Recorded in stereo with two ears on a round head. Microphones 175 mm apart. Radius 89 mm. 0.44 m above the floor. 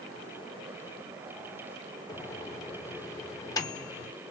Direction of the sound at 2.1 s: 20° left (ahead or behind).